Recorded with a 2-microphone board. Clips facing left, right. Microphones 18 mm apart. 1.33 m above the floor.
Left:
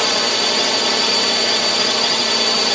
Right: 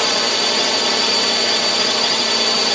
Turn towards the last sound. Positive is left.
turn(degrees=0)  # may be behind; listen again after turning